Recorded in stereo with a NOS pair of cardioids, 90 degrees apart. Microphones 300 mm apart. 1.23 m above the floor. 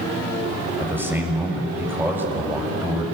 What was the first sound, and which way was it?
A man speaking, 5° right.